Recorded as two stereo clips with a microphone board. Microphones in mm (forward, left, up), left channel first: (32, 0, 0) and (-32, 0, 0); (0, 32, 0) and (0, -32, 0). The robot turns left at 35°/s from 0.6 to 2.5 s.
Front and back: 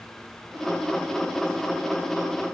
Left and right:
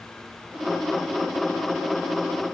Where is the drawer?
No drawer in this recording.